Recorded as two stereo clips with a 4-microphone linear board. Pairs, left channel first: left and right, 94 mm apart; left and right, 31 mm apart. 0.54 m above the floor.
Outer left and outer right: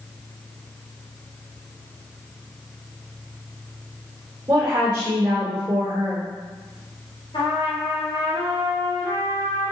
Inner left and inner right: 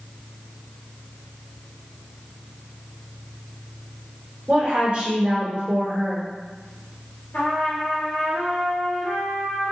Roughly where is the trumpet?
Left.